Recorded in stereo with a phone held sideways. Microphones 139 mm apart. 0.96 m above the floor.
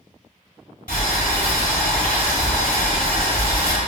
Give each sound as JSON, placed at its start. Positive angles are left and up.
{"t": 0.9, "sound": "boiling", "side_deg": 85, "distance_m": 1.5}